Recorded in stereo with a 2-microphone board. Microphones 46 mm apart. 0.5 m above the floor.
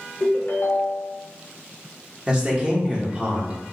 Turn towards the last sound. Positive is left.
turn(degrees=-25)  # may be behind; listen again after turning